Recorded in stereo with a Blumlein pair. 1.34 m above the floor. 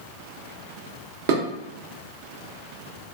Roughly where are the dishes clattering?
Ahead right.